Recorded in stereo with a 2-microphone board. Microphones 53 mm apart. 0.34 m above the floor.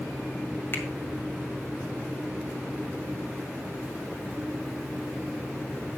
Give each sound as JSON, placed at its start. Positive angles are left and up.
{"t": 0.7, "sound": "a finger snap", "side_deg": 45, "distance_m": 1.9}